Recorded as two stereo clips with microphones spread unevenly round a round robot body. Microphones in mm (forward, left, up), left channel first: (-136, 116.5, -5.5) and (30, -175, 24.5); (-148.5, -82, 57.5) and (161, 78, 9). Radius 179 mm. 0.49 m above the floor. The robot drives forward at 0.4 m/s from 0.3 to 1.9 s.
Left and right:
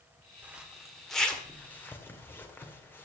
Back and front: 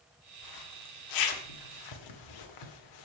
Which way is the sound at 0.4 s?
150° right.